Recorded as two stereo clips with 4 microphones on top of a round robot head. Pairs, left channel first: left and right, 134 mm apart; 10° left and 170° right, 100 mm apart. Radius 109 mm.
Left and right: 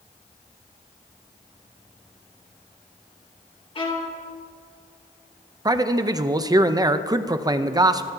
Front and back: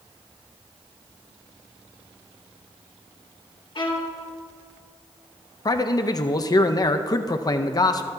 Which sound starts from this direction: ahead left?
A violin, at 3.8 s.